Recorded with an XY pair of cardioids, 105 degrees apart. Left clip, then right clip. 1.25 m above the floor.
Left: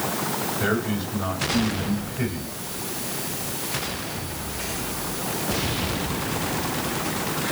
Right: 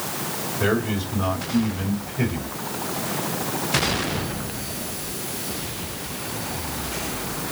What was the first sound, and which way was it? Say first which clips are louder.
A man speaking: right 5 dB; 25° right.